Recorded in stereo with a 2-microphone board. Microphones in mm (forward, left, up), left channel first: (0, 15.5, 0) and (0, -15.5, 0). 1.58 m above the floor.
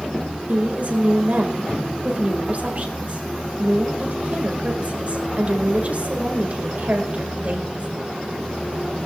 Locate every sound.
0.5 s a woman speaking: 50° right (ahead or behind), 2 m